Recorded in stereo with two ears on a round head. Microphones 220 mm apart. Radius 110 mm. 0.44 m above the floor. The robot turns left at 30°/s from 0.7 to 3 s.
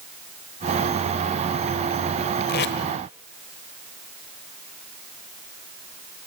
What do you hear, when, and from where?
2.5 s tape being pulled: 40° left (ahead or behind), 1.3 m; by 2.8 s 50° left (ahead or behind), 1.3 m